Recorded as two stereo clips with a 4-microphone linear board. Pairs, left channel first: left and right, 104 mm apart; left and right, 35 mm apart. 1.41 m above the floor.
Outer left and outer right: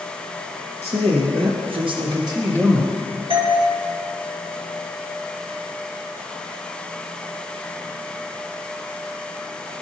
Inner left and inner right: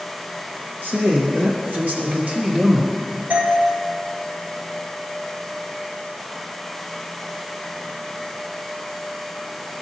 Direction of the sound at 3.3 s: 60° right (ahead or behind).